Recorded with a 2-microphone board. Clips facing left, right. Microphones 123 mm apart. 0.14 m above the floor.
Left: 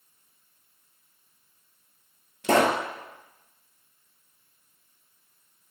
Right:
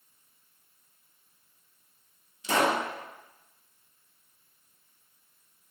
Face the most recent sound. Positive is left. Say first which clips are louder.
# left 4 dB
turn(degrees=65)  # may be behind; listen again after turning